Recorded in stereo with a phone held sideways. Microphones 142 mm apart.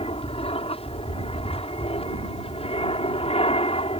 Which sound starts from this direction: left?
An aircraft, at 0.0 s.